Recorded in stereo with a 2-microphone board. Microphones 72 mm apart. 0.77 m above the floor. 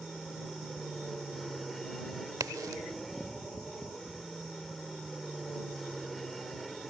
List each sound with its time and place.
0.0 s an aircraft: 5° left (ahead or behind)
2.4 s a crack: 60° right (ahead or behind)